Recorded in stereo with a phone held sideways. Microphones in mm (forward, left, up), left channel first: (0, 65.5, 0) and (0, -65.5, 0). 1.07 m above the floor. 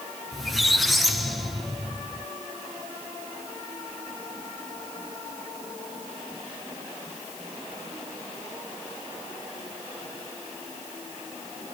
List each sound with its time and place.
0.3 s a squeak: centre (ahead or behind), 1.4 m